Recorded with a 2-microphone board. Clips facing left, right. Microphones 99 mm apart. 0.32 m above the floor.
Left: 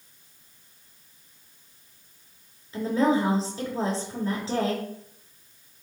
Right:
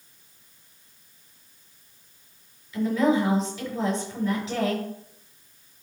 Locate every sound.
2.7 s a woman speaking: 35° left (ahead or behind), 5 m